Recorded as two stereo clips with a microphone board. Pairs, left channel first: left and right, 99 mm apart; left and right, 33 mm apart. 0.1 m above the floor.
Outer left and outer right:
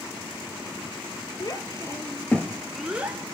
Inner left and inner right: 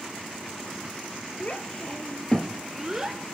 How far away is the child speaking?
About 2 m.